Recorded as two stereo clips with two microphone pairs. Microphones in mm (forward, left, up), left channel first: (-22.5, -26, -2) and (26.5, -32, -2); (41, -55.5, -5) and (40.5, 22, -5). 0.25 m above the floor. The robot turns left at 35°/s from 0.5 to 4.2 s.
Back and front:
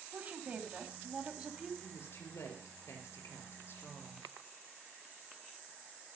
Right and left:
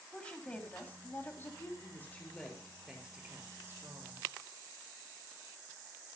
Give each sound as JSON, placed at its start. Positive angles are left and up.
{"t": 0.1, "sound": "a woman speaking", "azimuth_deg": -25, "distance_m": 1.8}
{"t": 1.8, "sound": "a woman speaking", "azimuth_deg": -150, "distance_m": 5.0}